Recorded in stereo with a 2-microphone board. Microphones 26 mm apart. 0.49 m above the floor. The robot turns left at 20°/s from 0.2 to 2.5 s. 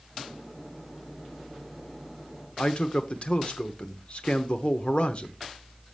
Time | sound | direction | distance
2.6 | a man speaking | 45° left (ahead or behind) | 1.0 m